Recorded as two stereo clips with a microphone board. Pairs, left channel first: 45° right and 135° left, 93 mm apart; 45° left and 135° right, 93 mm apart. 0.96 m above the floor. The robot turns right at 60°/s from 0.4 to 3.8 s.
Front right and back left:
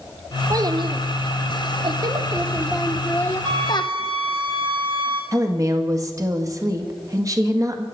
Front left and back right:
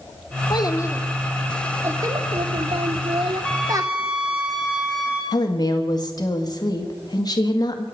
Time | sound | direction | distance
0.5 | a child speaking | 80° left | 1.2 m
3.4 | a flute | 120° left | 2.5 m
5.3 | a woman speaking | 85° left | 1.8 m